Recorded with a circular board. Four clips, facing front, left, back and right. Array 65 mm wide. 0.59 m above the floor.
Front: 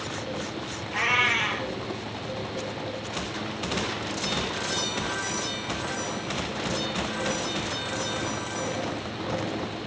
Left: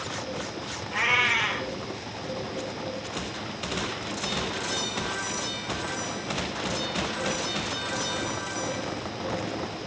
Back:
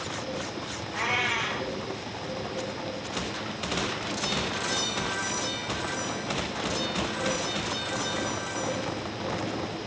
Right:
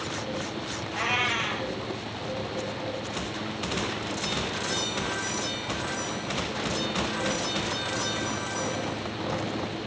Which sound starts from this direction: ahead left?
A cat meowing, at 0.9 s.